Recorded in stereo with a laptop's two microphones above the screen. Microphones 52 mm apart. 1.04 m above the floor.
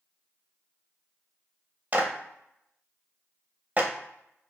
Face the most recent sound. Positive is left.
turn(degrees=-30)  # may be behind; listen again after turning